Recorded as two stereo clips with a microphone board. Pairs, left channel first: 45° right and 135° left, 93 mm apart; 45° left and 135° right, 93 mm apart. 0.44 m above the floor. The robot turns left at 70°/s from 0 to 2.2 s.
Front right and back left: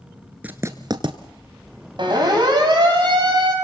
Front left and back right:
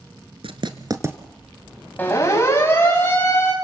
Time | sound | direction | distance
0.4 | writing | 150° right | 1.4 m
2.0 | a siren | 115° left | 4 m